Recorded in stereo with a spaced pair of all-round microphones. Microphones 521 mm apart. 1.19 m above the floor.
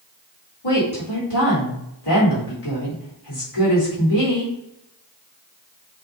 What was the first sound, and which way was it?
A woman speaking, 85° left.